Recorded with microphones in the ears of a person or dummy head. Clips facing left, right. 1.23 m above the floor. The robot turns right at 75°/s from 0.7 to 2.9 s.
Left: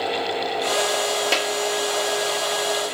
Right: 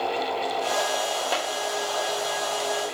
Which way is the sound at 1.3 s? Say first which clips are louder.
Left 4 dB; 35° left (ahead or behind).